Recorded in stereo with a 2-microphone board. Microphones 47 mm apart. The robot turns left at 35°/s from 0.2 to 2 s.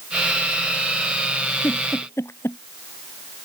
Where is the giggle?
60° left (ahead or behind); by 2.6 s 75° left (ahead or behind).